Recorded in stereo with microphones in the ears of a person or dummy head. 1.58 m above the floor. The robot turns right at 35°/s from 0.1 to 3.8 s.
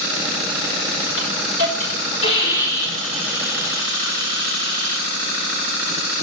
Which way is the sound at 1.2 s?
110° left.